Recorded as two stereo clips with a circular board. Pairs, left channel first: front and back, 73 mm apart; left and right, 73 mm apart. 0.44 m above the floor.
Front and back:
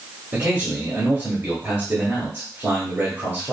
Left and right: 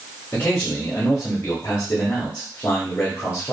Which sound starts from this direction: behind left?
A man speaking, at 0.3 s.